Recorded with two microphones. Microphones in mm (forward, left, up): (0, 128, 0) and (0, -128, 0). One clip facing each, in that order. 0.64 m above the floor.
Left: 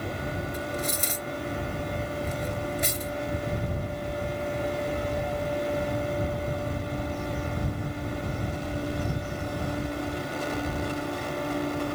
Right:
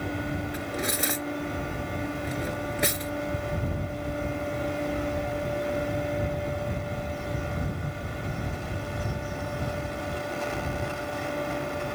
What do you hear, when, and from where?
0.5 s cutlery clinking: 75° right (ahead or behind)